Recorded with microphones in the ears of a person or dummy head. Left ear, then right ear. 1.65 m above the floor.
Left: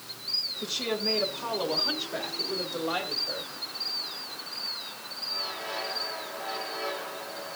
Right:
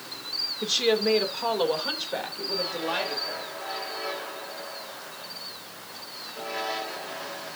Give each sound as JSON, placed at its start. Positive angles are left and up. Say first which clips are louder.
{"t": 0.6, "sound": "a woman speaking", "louder": "right 6 dB", "side_deg": -50, "distance_m": 2.5}